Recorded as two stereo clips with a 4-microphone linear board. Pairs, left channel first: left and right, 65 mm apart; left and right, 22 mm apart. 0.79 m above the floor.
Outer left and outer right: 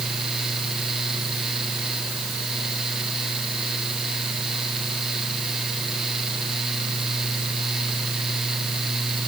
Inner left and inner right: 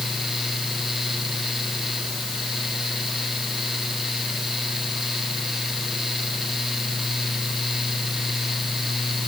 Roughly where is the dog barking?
No dog barking in this recording.